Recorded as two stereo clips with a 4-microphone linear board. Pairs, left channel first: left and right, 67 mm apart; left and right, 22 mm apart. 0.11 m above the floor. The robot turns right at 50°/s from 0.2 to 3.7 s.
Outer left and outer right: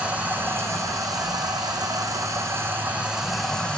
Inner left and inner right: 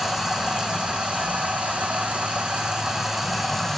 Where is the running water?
160° right, 1.0 m; by 3.8 s 15° left, 1.0 m.